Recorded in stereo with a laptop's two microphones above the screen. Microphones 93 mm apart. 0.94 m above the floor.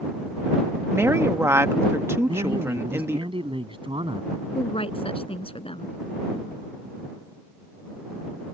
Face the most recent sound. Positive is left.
turn(degrees=80)